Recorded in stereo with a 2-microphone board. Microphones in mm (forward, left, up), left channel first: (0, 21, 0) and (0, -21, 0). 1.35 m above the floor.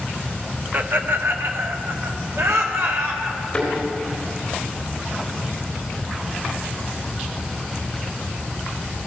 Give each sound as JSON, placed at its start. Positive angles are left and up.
{"t": 0.7, "sound": "laughter", "side_deg": -45, "distance_m": 0.9}
{"t": 3.5, "sound": "a thud", "side_deg": 15, "distance_m": 3.5}